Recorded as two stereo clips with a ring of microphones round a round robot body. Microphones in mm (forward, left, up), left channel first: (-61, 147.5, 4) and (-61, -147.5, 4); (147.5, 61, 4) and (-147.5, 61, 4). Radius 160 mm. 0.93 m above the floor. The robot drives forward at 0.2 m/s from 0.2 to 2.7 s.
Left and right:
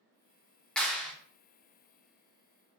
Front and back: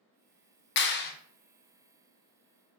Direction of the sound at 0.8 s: 5° left.